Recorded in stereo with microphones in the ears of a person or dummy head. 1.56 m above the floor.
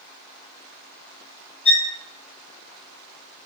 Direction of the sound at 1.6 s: 45° left (ahead or behind).